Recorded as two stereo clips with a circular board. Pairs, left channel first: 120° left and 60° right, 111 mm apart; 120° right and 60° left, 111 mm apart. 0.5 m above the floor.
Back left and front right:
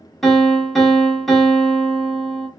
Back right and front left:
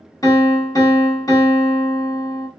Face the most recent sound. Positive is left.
turn(degrees=-155)